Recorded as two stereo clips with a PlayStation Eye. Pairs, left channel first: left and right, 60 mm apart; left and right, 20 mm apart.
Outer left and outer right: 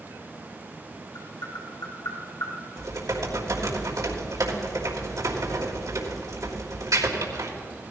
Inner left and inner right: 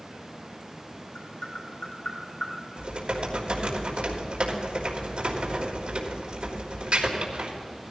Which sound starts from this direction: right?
Typing on a keyboard, at 2.8 s.